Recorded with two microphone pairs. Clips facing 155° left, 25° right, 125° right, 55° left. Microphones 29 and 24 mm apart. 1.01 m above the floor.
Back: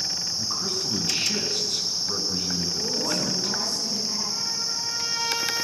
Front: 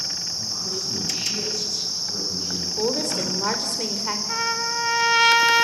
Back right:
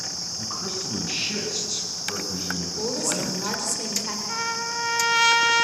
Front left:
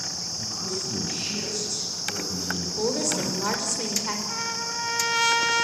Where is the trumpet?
45° right, 1.3 m.